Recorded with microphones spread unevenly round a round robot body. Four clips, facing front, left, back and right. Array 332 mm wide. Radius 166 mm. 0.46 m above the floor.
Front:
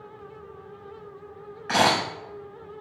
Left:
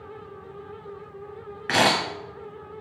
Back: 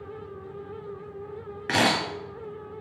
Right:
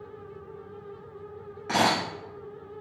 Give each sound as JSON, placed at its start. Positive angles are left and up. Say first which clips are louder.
{"t": 1.7, "sound": "a camera shutter", "louder": "left 3 dB, front 2 dB", "azimuth_deg": 150, "distance_m": 1.3}